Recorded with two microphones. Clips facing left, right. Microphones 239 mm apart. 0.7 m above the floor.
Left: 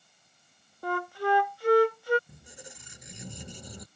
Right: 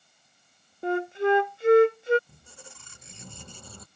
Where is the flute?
25° right (ahead or behind).